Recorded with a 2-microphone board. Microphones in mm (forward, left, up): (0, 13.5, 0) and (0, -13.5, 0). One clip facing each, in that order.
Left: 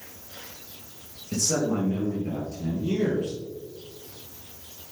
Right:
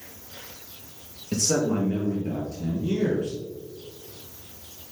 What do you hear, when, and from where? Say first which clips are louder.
1.3 s a man speaking: right 2 dB; 40° right (ahead or behind), 2.5 m; by 3.4 s 10° left (ahead or behind), 2.5 m